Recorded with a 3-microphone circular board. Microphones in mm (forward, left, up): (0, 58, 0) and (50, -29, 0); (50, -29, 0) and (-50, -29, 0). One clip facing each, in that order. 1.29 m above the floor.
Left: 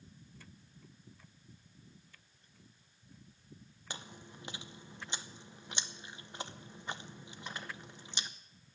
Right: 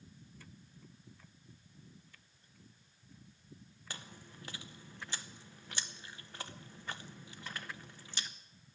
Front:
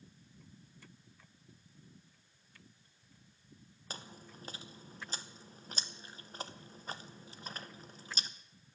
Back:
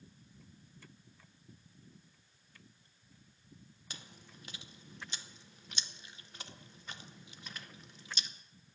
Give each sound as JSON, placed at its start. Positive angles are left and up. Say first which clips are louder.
{"t": 3.9, "sound": "chewing", "louder": "left 3 dB, front 6 dB", "azimuth_deg": 50, "distance_m": 0.8}